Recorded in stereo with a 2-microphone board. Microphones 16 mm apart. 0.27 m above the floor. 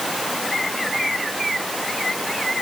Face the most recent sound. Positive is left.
No sound to turn to.